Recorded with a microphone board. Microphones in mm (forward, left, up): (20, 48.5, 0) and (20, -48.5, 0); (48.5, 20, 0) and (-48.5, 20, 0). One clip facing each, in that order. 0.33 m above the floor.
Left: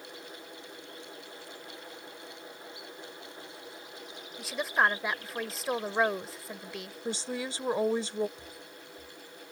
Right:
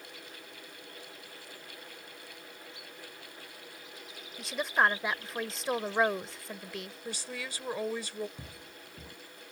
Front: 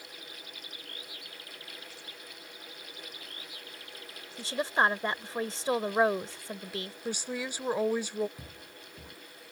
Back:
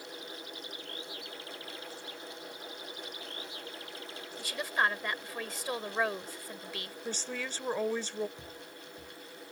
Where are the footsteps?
65° right.